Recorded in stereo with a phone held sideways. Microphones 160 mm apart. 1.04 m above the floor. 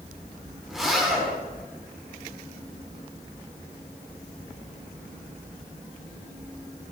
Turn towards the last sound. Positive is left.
turn(degrees=0)  # may be behind; listen again after turning